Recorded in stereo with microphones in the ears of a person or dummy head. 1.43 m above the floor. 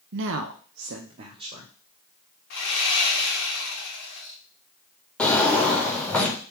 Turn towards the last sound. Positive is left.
turn(degrees=10)  # may be behind; listen again after turning